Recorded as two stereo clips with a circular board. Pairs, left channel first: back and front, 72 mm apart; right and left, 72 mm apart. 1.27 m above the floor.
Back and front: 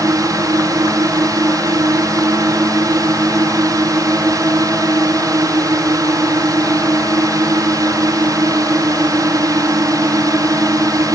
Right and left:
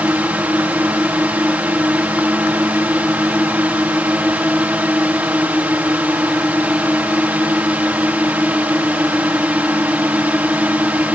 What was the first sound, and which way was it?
A drone, 20° left.